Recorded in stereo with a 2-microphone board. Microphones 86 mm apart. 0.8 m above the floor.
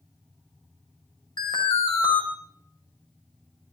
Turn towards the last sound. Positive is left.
turn(degrees=65)  # may be behind; listen again after turning